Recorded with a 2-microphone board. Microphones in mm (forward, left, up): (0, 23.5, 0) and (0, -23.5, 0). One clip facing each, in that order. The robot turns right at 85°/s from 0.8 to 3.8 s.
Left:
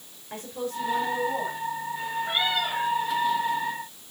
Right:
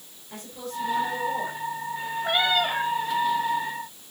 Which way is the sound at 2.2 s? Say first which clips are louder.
Right 5 dB; 85° right.